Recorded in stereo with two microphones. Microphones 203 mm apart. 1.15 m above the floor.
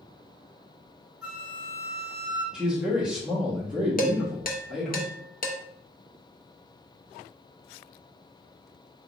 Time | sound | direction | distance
1.2 | a flute | 5° right (ahead or behind) | 1.6 m
2.5 | a man speaking | 5° right (ahead or behind) | 1.1 m
4.0 | dishes clattering | 45° left (ahead or behind) | 0.5 m